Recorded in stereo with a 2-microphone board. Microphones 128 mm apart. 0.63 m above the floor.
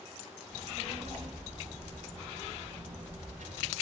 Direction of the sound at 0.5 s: 55° right (ahead or behind).